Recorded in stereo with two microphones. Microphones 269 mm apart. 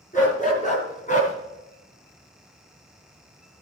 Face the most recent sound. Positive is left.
turn(degrees=30)  # may be behind; listen again after turning